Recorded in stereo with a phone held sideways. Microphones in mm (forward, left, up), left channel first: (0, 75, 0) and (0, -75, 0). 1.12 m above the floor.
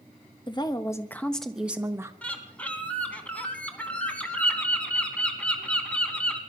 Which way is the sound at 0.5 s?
30° left (ahead or behind).